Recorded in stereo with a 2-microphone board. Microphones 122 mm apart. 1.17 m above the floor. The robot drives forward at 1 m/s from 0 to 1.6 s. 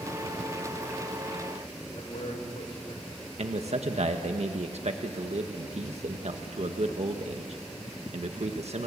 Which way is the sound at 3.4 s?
65° right (ahead or behind).